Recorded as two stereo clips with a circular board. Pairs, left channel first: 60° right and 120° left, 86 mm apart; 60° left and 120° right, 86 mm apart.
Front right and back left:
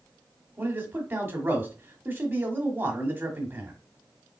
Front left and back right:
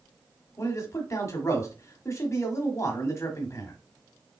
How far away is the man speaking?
About 1.3 m.